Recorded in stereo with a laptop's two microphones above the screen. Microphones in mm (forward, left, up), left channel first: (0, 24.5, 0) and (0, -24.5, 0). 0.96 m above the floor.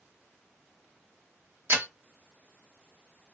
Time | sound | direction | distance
1.7 | breaking glass | 55° right (ahead or behind) | 1.0 m